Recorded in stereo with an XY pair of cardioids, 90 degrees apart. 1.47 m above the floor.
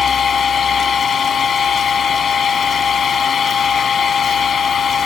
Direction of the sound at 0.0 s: 55° left.